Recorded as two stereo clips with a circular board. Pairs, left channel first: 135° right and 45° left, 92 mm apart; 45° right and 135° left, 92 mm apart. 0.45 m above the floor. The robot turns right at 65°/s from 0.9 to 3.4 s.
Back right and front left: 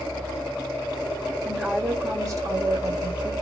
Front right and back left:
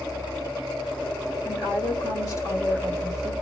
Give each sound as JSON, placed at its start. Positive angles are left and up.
{"t": 1.4, "sound": "a woman speaking", "azimuth_deg": -60, "distance_m": 1.3}